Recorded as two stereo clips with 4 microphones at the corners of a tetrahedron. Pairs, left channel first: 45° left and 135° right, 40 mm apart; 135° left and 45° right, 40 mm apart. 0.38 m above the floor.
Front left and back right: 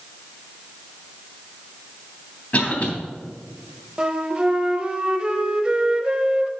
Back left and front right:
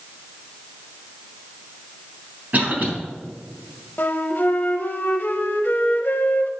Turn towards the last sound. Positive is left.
turn(degrees=165)